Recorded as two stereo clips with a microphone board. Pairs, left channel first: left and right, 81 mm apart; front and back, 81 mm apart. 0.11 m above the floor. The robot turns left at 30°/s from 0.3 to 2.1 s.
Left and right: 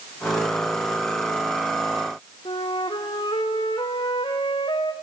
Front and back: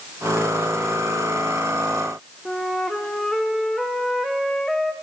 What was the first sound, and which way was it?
A flute, 85° left.